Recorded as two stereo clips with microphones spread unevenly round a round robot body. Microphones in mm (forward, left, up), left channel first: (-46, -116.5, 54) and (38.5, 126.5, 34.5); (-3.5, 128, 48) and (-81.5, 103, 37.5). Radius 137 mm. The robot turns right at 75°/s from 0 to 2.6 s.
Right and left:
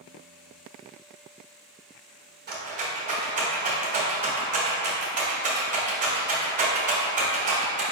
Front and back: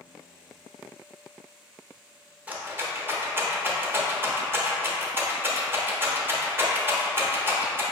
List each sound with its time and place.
2.5 s a rattle: 125° left, 1.2 m; by 7.8 s 135° left, 1.2 m